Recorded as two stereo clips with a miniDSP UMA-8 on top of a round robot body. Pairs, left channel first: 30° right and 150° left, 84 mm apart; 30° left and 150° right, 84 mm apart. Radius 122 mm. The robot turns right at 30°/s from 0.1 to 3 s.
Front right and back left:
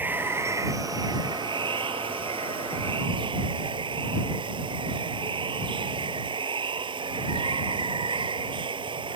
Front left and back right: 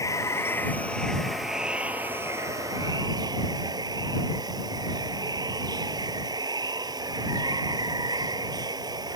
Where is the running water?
80° left; by 9.2 s 170° left.